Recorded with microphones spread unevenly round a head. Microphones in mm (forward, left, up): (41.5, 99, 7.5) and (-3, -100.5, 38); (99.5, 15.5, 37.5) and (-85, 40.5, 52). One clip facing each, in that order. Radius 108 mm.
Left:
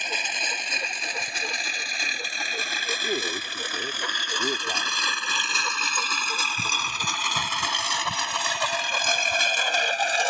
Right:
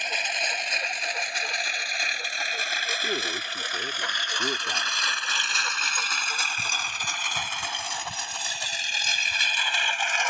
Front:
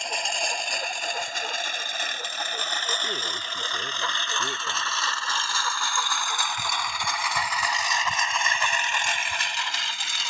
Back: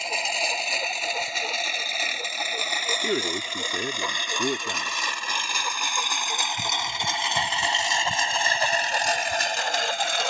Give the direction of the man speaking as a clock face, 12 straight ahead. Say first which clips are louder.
Left 2 dB, back 9 dB; 7 o'clock.